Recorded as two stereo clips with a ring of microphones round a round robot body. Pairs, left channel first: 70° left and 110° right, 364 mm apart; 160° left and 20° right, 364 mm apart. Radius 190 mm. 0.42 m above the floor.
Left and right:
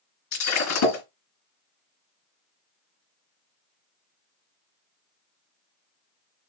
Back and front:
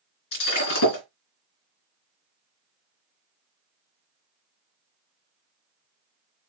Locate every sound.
0.3 s breaking glass: 115° left, 3.5 m